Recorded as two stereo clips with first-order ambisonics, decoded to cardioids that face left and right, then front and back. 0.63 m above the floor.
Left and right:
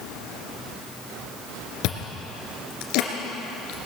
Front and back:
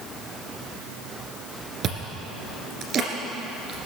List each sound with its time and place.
1.8 s chewing: 120° left, 2 m